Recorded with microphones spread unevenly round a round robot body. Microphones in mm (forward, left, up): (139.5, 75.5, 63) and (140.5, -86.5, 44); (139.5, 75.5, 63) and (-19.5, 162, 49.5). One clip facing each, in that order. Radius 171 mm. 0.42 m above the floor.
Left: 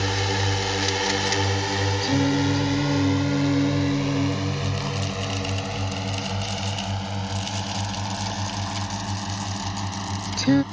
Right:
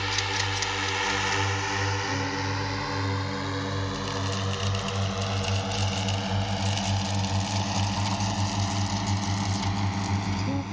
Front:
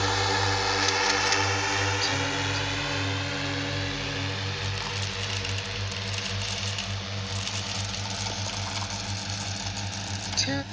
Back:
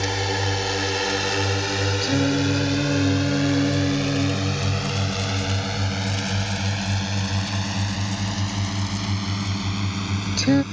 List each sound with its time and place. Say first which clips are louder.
0.0 s a drone: left 7 dB, back 2 dB; 100° left; by 10.7 s 170° right
2.0 s singing: left 10 dB, back 11 dB; 130° left